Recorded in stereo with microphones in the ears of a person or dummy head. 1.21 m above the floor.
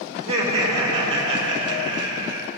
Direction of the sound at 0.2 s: 35° right (ahead or behind).